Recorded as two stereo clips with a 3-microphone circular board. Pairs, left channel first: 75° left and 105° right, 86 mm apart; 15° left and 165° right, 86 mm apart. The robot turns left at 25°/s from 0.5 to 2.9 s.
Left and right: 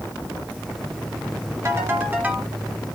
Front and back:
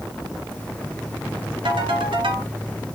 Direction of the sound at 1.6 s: 160° right.